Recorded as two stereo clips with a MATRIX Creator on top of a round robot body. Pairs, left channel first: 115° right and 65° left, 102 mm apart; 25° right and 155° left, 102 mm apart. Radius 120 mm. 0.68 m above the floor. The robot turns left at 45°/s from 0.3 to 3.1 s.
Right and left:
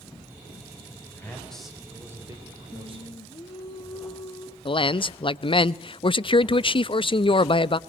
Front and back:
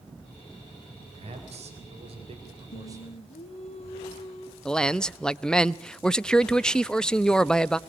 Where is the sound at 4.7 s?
105° right, 0.7 m.